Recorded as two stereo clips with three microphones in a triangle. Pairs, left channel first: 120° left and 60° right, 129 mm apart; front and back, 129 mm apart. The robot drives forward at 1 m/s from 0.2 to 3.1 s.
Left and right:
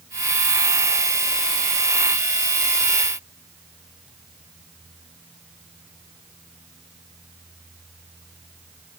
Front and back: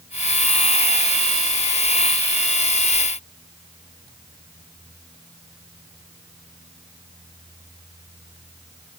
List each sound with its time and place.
Only background noise.